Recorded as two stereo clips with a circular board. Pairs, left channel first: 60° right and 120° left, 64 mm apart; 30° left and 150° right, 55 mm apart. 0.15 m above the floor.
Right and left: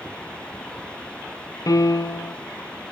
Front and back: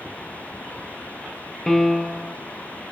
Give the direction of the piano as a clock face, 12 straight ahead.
2 o'clock.